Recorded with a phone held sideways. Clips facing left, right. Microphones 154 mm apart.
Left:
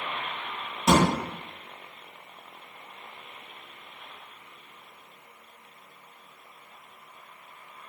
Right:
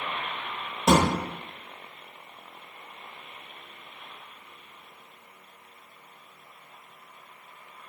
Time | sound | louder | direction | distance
0.9 | a thud | even | 30° right (ahead or behind) | 1.0 m